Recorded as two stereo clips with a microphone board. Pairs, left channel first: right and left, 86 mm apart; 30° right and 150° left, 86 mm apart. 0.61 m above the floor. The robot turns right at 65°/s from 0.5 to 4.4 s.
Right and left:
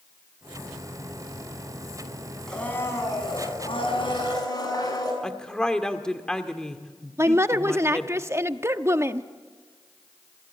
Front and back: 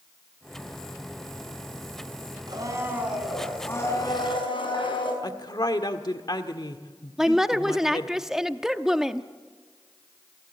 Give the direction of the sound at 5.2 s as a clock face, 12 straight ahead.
12 o'clock.